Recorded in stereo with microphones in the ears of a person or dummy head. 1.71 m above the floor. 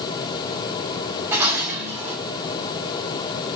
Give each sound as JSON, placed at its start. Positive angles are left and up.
{"t": 1.3, "sound": "dishes clattering", "side_deg": -10, "distance_m": 4.0}